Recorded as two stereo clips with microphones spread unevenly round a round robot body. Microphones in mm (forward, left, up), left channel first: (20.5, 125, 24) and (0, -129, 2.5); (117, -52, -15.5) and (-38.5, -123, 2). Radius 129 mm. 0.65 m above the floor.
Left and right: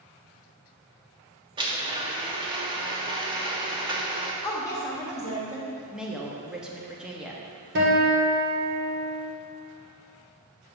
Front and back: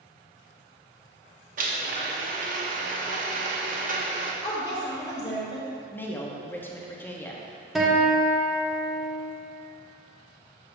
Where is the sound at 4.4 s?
10° left, 1.1 m.